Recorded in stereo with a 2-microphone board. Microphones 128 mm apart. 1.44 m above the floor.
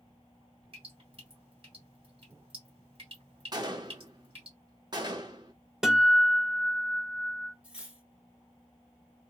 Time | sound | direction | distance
0.7 | dripping | 45° right (ahead or behind) | 2 m
3.5 | a gunshot | 35° right (ahead or behind) | 0.6 m
5.8 | a guitar | 5° right (ahead or behind) | 0.7 m
7.6 | cutlery clinking | 10° right (ahead or behind) | 0.8 m